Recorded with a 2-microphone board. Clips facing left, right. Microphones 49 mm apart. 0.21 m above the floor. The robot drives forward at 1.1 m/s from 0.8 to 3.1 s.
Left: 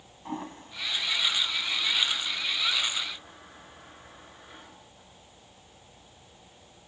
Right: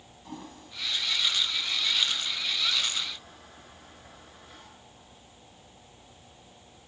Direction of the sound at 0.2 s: 35° left (ahead or behind).